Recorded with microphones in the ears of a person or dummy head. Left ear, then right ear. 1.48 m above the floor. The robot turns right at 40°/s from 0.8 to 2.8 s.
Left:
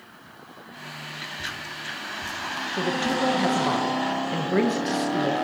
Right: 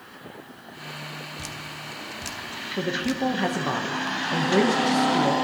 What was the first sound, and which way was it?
Dripping, 75° right (ahead or behind).